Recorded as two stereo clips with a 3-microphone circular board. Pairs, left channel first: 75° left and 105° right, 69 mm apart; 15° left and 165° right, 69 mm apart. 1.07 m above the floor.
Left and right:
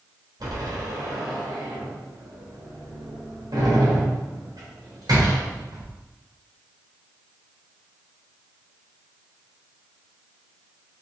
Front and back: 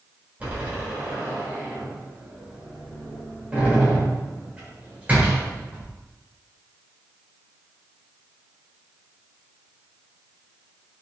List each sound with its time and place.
0.4 s a door slam: 100° right, 3.5 m